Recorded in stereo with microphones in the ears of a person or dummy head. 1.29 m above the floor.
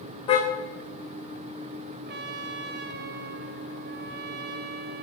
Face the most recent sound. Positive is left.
turn(degrees=-60)  # may be behind; listen again after turning